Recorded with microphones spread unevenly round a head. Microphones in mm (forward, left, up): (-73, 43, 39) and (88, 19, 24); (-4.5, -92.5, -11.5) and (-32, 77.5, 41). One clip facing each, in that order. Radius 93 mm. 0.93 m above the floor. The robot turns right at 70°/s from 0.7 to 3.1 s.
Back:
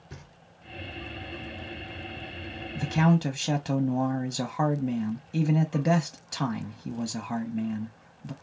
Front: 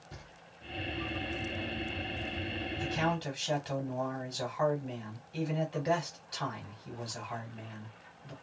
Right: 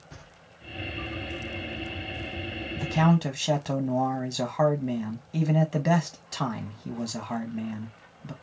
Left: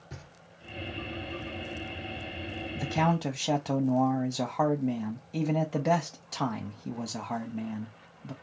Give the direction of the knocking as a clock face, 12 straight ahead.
6 o'clock.